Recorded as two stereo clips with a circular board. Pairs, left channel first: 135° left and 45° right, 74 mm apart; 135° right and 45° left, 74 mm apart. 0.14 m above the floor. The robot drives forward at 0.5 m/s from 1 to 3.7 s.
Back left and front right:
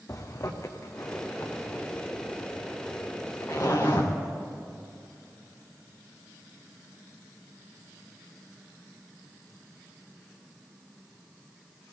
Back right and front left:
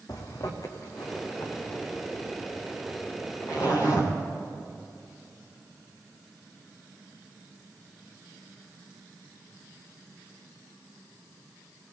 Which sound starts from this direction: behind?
A zipper, at 0.1 s.